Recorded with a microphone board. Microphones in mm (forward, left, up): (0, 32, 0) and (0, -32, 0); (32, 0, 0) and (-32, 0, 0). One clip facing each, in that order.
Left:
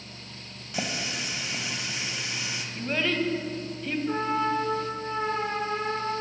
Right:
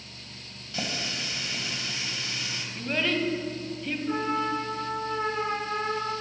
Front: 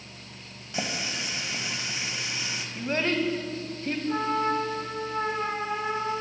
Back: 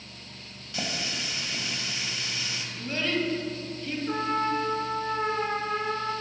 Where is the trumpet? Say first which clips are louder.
Left 1 dB, front 1 dB; 170° left, 2.5 m.